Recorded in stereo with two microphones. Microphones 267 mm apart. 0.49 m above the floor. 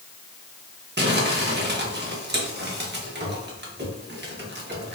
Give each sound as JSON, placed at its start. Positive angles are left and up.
{"t": 1.0, "sound": "crumpling", "side_deg": -40, "distance_m": 0.6}